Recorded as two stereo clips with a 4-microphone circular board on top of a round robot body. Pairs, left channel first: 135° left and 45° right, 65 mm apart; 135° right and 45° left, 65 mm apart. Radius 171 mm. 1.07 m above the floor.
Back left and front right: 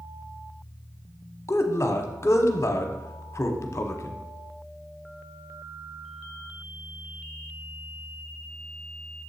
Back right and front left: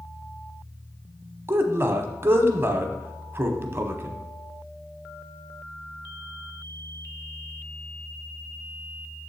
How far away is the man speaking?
About 0.9 m.